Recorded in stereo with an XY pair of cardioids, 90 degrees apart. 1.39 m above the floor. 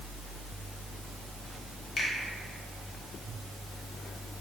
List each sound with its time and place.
2.0 s a finger snap: 60° left, 1.0 m